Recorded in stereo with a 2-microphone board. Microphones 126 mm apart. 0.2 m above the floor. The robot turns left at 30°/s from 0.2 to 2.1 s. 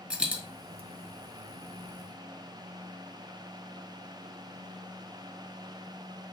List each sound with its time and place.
0.1 s a dropped coin: 10° right (ahead or behind), 1.2 m; by 0.4 s 15° right (ahead or behind), 1.2 m